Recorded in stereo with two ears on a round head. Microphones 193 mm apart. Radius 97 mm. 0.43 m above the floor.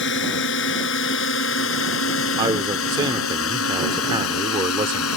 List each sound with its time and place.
0.0 s a drone: 60° left (ahead or behind); by 5.2 s 75° left (ahead or behind)
2.4 s a man speaking: 20° right (ahead or behind)